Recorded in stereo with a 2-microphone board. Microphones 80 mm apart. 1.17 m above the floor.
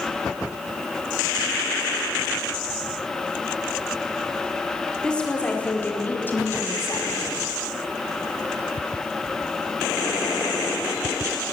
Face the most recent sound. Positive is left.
turn(degrees=40)  # may be behind; listen again after turning